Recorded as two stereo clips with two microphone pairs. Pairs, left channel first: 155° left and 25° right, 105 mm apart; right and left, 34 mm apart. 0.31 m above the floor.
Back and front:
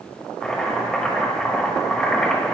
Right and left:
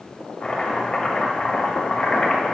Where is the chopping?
130° right, 1.5 m.